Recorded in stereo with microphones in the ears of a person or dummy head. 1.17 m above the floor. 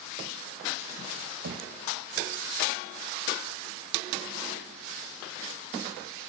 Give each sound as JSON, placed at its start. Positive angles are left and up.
{"t": 1.4, "sound": "knocking", "side_deg": -60, "distance_m": 0.8}